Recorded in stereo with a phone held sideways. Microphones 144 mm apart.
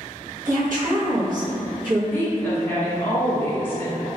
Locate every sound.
0.5 s a woman speaking: 65° right (ahead or behind), 1.5 m
2.1 s a woman speaking: 15° left (ahead or behind), 1.0 m